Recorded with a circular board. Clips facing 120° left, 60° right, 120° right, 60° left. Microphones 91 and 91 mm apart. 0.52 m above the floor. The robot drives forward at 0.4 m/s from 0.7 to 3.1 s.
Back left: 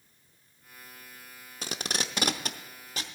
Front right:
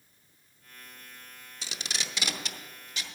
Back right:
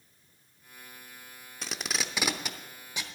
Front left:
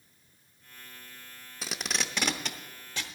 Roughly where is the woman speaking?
I don't hear a woman speaking.